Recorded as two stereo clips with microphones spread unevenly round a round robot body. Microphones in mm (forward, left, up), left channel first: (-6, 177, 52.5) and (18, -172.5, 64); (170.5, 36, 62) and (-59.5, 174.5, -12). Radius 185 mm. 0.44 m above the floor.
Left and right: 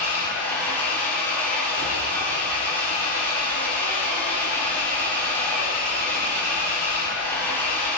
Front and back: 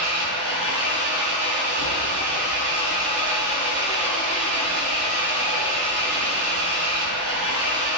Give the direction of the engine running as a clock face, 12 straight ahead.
6 o'clock.